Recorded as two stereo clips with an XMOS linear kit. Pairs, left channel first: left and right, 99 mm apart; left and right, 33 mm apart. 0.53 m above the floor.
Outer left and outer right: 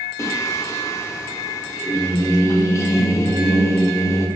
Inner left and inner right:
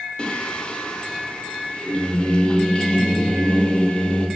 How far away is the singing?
About 0.5 m.